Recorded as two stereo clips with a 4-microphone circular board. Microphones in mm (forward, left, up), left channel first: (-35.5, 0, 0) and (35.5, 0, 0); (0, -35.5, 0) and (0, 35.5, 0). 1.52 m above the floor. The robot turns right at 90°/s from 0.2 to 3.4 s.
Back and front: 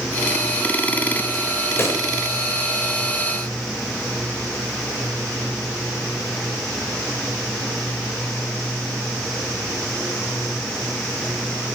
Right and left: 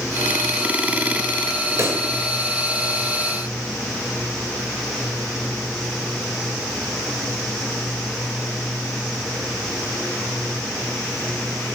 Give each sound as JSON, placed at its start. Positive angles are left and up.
{"t": 1.8, "sound": "a pop", "azimuth_deg": 130, "distance_m": 2.5}